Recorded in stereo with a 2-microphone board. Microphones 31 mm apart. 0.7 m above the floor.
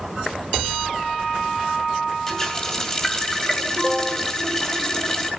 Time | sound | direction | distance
2.3 | a running tap | 15° left (ahead or behind) | 2.5 m